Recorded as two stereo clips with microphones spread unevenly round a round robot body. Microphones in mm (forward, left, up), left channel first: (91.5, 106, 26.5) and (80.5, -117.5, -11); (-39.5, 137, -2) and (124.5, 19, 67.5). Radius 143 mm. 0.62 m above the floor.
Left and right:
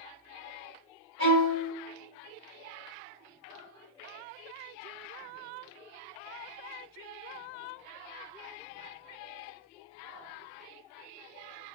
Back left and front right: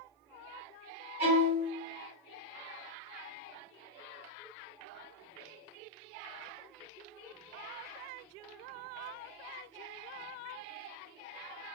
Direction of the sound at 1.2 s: 80° right.